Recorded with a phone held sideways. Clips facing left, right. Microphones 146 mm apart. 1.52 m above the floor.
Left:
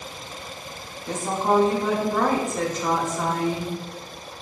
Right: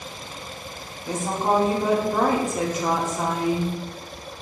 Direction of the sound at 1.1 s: 10° right (ahead or behind).